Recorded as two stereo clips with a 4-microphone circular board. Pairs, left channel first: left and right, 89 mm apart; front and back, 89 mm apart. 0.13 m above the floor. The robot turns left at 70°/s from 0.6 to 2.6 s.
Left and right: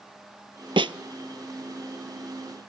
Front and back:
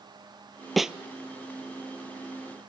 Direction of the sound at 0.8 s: 90° right.